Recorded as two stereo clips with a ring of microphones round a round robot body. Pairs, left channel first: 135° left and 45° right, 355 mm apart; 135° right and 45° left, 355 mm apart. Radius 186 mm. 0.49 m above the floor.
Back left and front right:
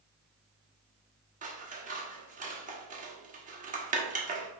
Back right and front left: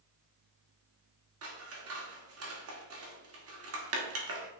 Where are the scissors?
15° left, 1.8 m.